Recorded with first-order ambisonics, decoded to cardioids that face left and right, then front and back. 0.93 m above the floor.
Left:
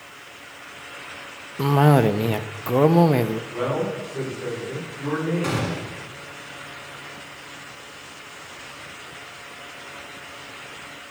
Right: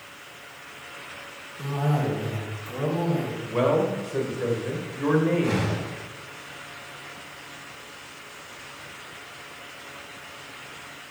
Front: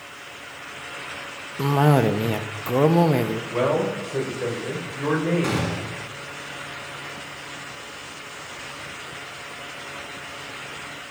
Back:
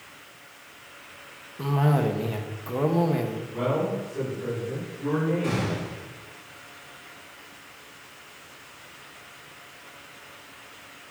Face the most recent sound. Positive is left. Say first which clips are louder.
# left 1 dB, front 3 dB
turn(degrees=50)